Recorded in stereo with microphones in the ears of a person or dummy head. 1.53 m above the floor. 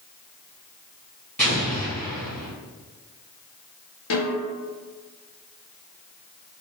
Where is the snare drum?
70° left (ahead or behind), 1.2 m.